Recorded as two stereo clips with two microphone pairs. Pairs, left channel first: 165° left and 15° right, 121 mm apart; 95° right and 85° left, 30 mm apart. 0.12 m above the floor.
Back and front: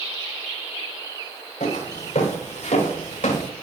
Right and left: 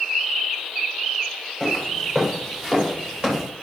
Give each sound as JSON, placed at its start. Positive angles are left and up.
{"t": 1.6, "sound": "footsteps", "azimuth_deg": 170, "distance_m": 5.5}